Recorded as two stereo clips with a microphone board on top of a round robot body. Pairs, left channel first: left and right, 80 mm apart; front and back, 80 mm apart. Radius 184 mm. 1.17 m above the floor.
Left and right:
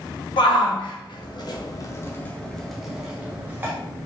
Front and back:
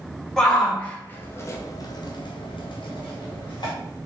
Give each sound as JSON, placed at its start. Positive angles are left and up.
{"t": 0.4, "sound": "a shout", "azimuth_deg": 85, "distance_m": 1.1}